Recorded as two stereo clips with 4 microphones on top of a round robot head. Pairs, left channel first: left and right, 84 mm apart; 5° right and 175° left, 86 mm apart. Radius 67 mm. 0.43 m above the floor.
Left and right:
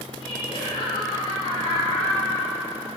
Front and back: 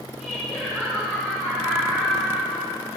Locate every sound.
0.2 s laughter: 85° left, 6 m